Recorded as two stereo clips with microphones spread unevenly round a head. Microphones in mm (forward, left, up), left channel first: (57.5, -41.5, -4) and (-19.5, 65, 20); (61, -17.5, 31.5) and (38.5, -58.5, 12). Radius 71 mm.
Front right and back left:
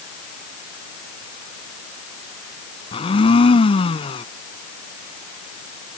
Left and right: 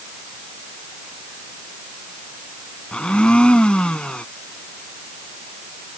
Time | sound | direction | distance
2.9 | a blender | 5° right | ?